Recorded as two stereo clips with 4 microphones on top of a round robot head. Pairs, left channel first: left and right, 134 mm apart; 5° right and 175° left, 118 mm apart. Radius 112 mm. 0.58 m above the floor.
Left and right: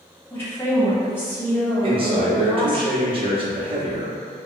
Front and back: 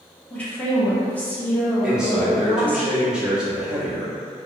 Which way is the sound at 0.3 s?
50° left.